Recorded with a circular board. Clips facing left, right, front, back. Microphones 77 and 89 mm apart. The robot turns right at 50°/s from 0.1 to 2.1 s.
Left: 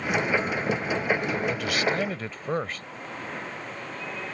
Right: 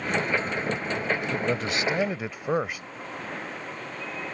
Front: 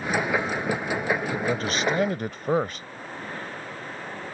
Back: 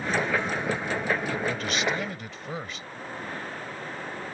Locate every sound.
1.3 s a man speaking: 55° right; by 2.9 s 15° right